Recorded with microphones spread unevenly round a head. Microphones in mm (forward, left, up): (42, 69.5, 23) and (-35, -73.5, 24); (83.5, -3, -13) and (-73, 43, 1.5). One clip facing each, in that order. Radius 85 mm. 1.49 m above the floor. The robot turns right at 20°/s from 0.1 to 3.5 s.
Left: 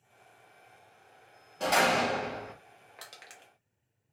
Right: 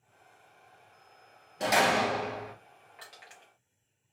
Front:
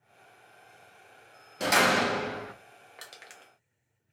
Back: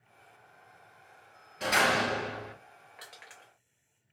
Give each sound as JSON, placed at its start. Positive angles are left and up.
{"t": 1.6, "sound": "a door slam", "azimuth_deg": -45, "distance_m": 0.7}
{"t": 3.0, "sound": "crushing", "azimuth_deg": 20, "distance_m": 0.9}